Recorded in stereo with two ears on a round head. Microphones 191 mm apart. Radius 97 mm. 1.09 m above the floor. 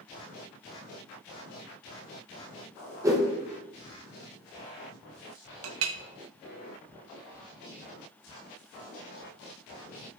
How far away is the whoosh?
About 0.9 m.